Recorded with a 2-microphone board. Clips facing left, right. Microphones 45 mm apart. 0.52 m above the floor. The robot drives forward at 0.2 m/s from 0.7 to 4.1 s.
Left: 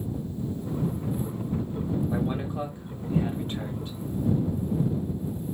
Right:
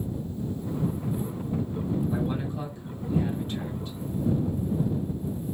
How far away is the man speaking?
About 1.6 m.